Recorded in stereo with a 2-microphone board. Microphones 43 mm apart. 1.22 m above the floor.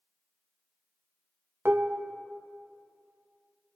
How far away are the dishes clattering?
About 0.5 m.